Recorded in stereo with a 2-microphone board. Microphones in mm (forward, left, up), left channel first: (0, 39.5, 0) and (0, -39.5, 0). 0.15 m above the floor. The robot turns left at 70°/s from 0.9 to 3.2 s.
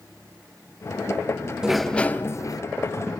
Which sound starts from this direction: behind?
A sliding door, at 1.6 s.